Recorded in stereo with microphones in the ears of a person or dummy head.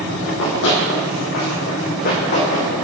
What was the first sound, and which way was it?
Running footsteps, 65° left (ahead or behind).